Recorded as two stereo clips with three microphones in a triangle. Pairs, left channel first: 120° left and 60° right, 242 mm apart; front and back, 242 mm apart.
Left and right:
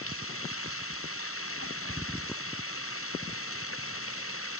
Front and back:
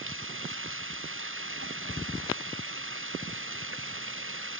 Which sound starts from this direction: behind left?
Running water, at 0.0 s.